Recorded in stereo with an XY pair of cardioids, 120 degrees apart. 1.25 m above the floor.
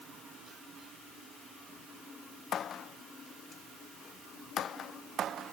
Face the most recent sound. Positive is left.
No sound to turn to.